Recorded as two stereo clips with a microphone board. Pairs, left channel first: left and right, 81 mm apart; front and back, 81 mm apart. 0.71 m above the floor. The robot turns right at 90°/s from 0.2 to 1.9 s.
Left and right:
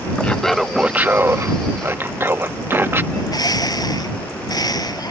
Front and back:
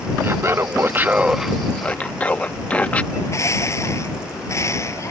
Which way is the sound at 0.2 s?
150° left.